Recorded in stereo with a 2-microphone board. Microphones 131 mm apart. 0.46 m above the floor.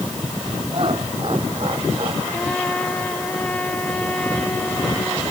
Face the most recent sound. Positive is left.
turn(degrees=10)  # may be behind; listen again after turning